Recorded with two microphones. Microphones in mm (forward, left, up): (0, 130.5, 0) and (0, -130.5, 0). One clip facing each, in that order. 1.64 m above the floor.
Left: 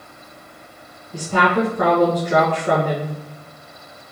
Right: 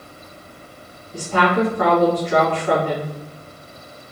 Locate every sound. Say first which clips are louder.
1.1 s a woman speaking: even; 45° left (ahead or behind), 1.4 m